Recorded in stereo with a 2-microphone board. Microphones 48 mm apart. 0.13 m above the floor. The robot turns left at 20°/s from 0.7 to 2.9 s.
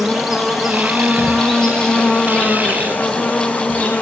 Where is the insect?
175° right, 1.3 m; by 4.0 s 140° left, 1.3 m.